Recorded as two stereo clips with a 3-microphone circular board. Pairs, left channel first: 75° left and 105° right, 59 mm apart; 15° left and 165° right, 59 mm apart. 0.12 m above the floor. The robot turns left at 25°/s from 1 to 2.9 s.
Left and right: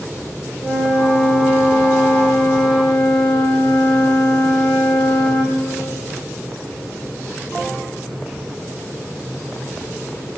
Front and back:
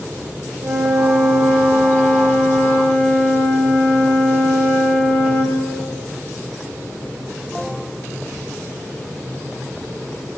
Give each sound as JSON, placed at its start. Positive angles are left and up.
{"t": 0.6, "sound": "a flute", "azimuth_deg": -165, "distance_m": 4.0}